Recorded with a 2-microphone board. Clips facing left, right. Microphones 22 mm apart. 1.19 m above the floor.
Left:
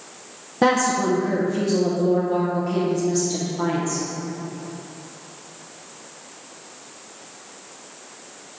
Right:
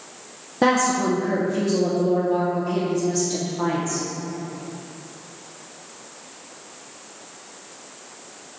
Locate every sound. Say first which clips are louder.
0.6 s a woman speaking: even; centre (ahead or behind), 0.8 m